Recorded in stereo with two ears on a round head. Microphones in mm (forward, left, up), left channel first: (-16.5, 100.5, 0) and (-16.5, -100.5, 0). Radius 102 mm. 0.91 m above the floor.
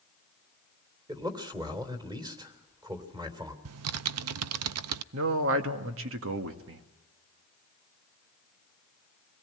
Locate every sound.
1.1 s a man speaking: 20° right (ahead or behind), 3 m
3.6 s typing on a keyboard: 80° right, 0.6 m
5.1 s a man speaking: 65° right (ahead or behind), 1.7 m